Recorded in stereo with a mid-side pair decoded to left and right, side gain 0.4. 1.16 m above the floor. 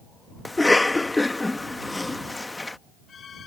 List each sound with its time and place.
0.5 s a cough: 15° left